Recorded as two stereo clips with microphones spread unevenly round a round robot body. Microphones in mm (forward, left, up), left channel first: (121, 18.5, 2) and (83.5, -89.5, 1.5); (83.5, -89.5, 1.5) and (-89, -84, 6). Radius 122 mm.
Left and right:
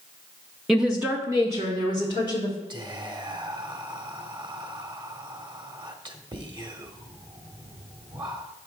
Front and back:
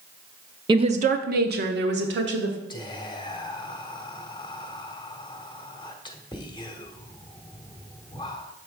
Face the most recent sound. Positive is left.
turn(degrees=-65)